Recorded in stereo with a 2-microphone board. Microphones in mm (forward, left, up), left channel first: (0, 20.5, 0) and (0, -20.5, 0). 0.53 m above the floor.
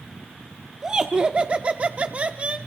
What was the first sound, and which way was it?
Laughter, 15° right (ahead or behind).